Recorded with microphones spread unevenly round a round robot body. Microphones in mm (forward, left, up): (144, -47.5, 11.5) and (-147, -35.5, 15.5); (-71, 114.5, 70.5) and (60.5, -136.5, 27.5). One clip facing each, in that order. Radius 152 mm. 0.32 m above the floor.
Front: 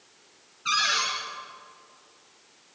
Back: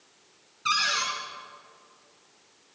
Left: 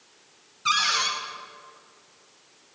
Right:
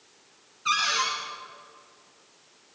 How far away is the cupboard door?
About 3 m.